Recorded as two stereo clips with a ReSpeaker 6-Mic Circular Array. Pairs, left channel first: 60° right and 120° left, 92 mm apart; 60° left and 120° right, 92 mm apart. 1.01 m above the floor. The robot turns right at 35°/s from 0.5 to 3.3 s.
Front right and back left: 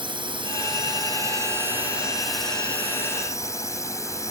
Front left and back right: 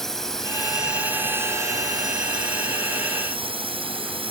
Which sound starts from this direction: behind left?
A drone, at 0.0 s.